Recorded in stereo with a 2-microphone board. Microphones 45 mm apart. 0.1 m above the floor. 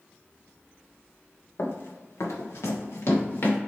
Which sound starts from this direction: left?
Running footsteps, at 1.6 s.